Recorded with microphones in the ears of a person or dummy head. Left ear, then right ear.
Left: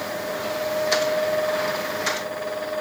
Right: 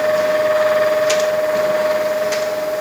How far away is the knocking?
I don't hear knocking.